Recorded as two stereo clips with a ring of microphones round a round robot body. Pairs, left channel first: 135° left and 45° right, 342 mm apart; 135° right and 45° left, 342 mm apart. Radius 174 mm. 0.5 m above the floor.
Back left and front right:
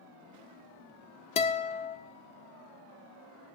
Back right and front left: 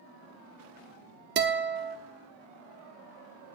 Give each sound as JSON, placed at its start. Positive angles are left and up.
{"t": 1.4, "sound": "a guitar", "azimuth_deg": 75, "distance_m": 1.2}